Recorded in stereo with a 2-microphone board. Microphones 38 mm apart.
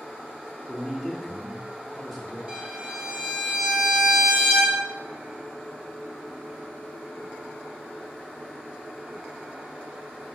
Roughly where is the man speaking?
Centre.